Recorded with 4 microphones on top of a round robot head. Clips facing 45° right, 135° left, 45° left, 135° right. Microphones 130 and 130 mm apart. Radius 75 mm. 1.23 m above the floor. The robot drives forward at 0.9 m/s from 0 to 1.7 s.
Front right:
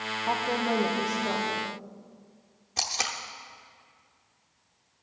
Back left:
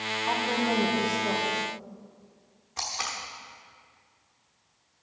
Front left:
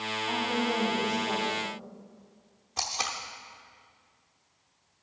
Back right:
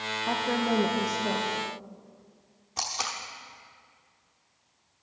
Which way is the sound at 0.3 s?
115° right.